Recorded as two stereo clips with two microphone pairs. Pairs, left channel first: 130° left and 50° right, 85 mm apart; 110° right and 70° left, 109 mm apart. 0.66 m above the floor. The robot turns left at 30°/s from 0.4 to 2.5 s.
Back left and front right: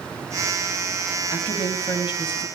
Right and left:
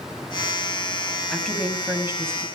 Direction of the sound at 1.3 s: 165° left.